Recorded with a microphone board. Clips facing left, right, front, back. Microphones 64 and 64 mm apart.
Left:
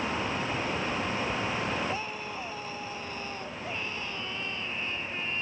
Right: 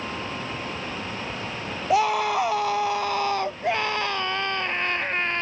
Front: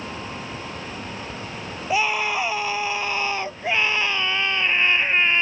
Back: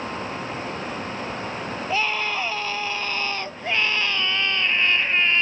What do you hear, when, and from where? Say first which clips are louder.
1.9 s a scream: right 14 dB, front 3 dB; 80° right; by 5.4 s 70° right